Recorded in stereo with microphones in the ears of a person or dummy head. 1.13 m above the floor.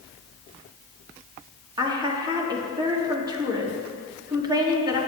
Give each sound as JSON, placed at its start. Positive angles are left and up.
{"t": 1.8, "sound": "a woman speaking", "side_deg": -20, "distance_m": 1.7}